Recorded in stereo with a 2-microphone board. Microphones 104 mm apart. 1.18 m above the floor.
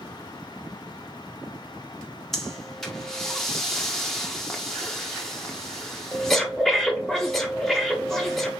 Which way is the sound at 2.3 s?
5° left (ahead or behind).